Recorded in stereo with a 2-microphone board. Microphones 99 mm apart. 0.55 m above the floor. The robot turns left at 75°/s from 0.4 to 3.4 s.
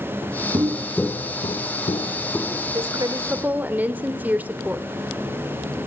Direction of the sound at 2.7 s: 110° right.